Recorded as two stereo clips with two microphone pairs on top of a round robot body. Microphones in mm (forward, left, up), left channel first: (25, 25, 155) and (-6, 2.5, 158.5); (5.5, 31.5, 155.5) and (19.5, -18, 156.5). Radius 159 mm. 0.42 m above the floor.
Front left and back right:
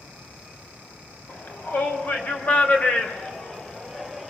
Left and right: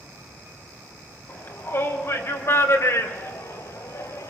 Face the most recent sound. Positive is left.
turn(degrees=115)